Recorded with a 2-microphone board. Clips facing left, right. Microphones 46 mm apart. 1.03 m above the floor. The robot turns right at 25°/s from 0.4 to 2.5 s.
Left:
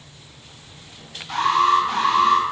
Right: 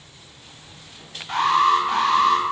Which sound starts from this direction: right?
An alarm, at 1.3 s.